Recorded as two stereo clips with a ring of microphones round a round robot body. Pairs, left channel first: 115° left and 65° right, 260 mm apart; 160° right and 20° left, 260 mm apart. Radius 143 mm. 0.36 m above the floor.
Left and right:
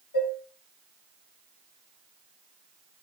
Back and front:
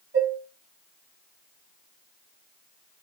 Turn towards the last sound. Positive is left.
turn(degrees=70)